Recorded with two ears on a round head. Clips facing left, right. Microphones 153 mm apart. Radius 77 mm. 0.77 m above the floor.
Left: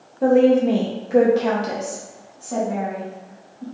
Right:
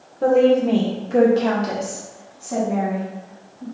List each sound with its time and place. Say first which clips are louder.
0.2 s a woman speaking: even; 5° left (ahead or behind), 0.7 m; by 3.6 s centre (ahead or behind), 1.8 m